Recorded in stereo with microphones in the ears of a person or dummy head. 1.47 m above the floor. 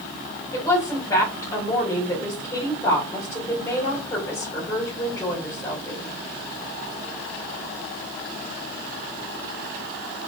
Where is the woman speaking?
15° left (ahead or behind), 2 m.